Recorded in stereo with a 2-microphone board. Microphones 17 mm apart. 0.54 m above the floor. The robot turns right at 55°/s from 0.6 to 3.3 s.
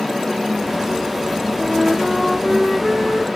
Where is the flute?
10° right, 5.5 m; by 3.3 s 85° left, 5.5 m.